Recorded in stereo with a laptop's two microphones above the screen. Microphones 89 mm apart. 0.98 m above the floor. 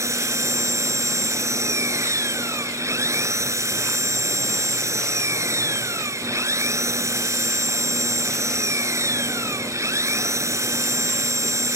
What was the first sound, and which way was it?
An engine running, 35° right (ahead or behind).